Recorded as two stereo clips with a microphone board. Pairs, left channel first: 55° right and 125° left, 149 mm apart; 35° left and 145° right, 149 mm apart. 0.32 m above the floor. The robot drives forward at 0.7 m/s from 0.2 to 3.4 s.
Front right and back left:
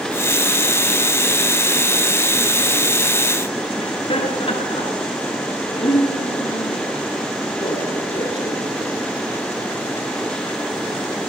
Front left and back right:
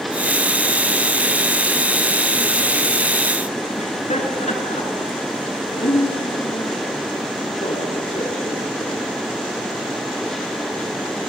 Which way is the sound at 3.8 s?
5° right.